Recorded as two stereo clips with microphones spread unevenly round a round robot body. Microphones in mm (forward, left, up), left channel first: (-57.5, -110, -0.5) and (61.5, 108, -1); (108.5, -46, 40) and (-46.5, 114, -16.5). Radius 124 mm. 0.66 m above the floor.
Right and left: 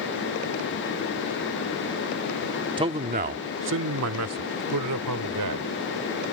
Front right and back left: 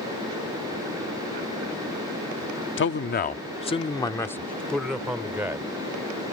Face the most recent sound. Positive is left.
turn(degrees=55)